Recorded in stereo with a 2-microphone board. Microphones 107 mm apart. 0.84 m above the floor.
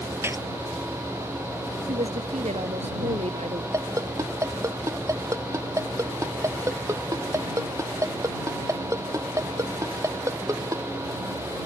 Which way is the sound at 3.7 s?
30° right (ahead or behind).